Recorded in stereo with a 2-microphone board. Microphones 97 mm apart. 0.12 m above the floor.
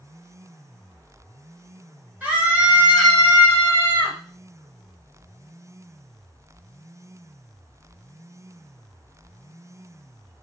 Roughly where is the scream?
Centre.